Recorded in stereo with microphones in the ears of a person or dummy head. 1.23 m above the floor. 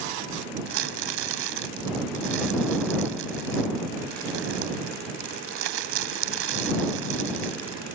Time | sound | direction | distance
0.7 | crumpling | 70° right (ahead or behind) | ?